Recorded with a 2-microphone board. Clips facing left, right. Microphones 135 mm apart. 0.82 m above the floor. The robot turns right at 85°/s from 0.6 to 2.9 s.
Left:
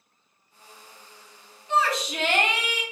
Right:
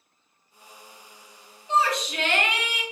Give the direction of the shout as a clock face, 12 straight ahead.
1 o'clock.